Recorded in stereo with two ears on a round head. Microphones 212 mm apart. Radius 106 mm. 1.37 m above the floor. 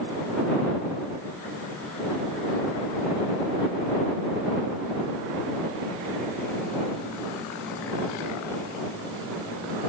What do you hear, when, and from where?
Only background noise.